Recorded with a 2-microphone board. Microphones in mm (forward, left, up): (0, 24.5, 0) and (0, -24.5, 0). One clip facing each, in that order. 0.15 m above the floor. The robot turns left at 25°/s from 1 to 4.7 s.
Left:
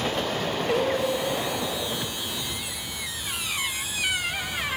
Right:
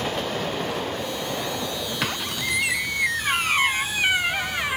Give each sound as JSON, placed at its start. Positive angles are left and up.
{"t": 0.7, "sound": "singing", "side_deg": 65}
{"t": 2.0, "sound": "a squeak", "azimuth_deg": -100}